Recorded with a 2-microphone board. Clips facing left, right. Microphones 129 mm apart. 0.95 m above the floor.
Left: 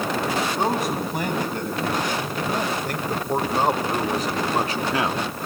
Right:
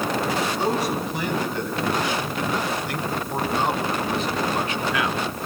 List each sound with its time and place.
0.6 s a man speaking: 50° left (ahead or behind), 8.5 m; by 5.3 s 25° left (ahead or behind), 1.9 m